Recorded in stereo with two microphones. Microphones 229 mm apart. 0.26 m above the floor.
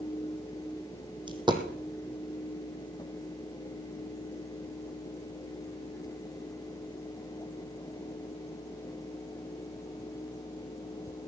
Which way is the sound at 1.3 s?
20° right (ahead or behind).